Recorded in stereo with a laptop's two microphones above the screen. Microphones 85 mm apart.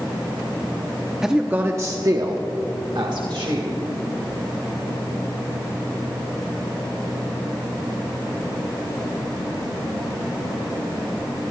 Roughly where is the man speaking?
Centre.